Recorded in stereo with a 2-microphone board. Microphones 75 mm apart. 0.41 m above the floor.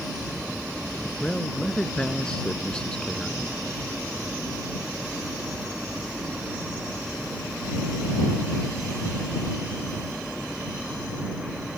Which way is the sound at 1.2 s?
10° left (ahead or behind).